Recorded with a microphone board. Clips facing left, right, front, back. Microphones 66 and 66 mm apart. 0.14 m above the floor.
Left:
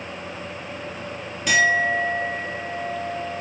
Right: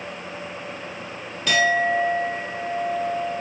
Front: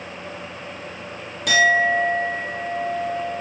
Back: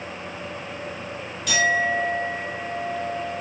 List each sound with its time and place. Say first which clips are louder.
1.5 s a clink: left 1 dB, front 5 dB; 15° left, 1.7 m